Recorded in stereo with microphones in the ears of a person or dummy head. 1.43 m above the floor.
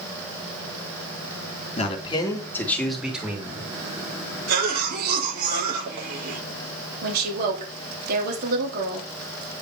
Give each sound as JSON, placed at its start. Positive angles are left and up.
{"t": 1.8, "sound": "a man speaking", "side_deg": 35, "distance_m": 2.5}
{"t": 4.5, "sound": "a cough", "side_deg": -50, "distance_m": 4.0}
{"t": 7.0, "sound": "a woman speaking", "side_deg": -50, "distance_m": 3.5}